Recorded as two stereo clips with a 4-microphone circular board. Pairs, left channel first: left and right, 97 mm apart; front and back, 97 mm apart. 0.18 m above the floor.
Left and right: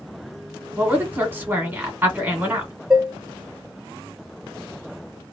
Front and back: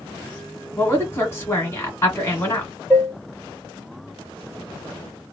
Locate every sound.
0.8 s a woman speaking: 35° right, 1.6 m
2.9 s dishes clattering: 15° right, 0.7 m